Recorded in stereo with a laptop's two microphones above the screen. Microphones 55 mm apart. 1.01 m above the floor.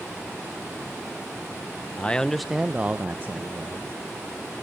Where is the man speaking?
25° left (ahead or behind), 0.6 m; by 3.9 s 45° right (ahead or behind), 1.2 m.